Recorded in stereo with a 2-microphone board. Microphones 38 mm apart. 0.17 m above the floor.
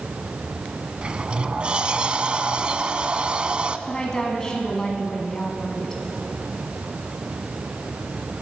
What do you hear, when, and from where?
1.0 s a sliding door: 30° right (ahead or behind), 0.6 m
3.9 s a woman speaking: 20° left (ahead or behind), 1.7 m